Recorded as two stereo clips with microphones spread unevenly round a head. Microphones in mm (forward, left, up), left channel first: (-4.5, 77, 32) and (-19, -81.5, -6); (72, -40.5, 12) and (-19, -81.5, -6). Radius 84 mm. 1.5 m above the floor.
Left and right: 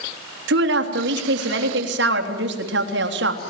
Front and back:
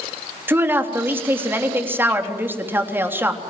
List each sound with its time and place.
0.5 s a woman speaking: 85° right, 3.5 m